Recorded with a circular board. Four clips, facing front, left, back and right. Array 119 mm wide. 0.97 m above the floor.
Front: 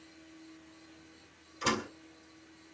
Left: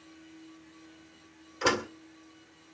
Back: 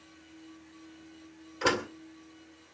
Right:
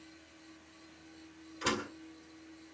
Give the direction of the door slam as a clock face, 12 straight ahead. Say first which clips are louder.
Left 7 dB, back 4 dB; 7 o'clock.